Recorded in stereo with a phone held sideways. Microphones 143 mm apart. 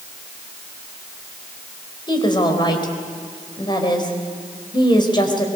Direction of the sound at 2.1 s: 30° left (ahead or behind).